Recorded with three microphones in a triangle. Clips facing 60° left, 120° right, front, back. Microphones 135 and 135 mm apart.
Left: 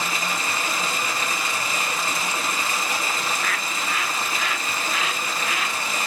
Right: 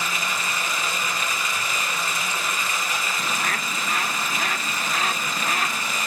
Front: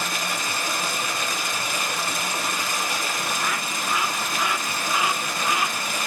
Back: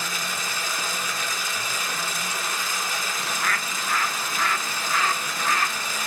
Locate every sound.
0.0 s running water: 5° left, 3 m
3.2 s a bird: 75° right, 0.7 m